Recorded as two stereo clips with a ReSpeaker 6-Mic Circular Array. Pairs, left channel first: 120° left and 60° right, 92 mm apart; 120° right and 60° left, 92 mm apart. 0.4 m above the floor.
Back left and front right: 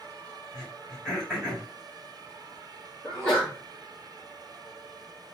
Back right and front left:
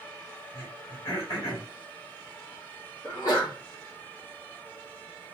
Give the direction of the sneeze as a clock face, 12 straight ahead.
5 o'clock.